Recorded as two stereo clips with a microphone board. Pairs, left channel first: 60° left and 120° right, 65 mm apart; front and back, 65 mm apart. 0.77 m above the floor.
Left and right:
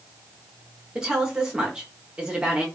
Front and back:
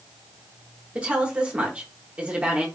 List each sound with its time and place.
0.9 s a woman speaking: 160° right, 0.9 m